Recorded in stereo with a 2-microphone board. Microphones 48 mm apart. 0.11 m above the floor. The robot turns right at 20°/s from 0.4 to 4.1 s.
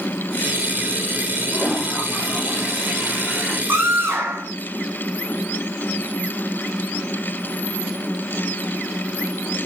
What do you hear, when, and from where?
1.5 s a toilet flushing: 165° left, 7.5 m; by 3.6 s 150° right, 7.5 m
3.7 s a scream: 45° right (ahead or behind), 6.5 m; by 4.5 s 55° right (ahead or behind), 6.5 m